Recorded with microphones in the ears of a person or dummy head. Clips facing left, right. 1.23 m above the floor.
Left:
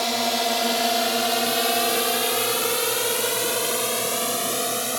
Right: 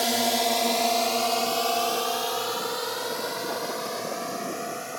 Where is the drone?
5° right (ahead or behind); by 5.0 s 60° left (ahead or behind).